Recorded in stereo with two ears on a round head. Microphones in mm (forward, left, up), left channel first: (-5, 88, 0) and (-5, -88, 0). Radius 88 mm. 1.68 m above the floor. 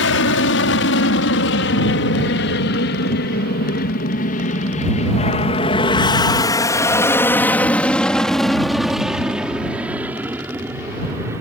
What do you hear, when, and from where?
0.0 s an aircraft: 75° left (ahead or behind); by 11.4 s 15° right (ahead or behind)